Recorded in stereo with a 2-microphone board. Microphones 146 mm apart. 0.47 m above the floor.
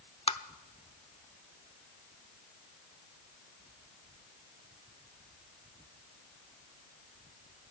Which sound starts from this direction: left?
Tapping, at 0.3 s.